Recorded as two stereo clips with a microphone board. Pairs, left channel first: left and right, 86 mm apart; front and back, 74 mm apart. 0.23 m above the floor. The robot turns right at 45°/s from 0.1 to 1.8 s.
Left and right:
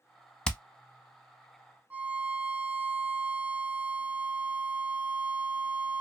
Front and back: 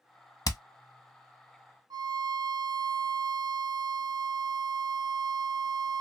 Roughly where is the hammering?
Ahead.